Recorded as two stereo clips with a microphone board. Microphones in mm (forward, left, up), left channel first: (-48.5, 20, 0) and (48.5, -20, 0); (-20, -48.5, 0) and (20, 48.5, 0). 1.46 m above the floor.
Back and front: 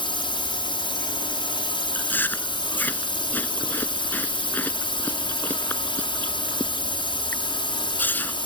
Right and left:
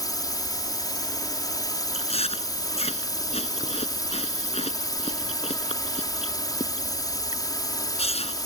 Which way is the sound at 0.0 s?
165° right.